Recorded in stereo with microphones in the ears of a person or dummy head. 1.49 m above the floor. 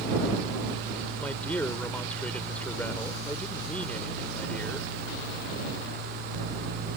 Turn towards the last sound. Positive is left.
turn(degrees=5)  # may be behind; listen again after turning